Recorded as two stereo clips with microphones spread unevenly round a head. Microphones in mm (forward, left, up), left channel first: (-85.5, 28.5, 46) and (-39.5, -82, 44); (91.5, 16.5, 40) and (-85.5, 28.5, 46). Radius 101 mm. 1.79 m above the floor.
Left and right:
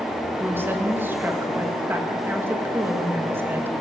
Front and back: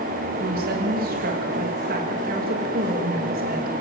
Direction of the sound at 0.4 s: 140° right.